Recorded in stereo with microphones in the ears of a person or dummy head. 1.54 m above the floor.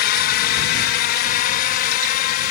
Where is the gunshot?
No gunshot in this recording.